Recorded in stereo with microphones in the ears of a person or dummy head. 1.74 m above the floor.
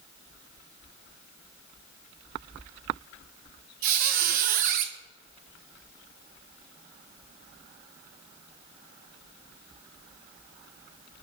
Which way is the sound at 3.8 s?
45° right (ahead or behind).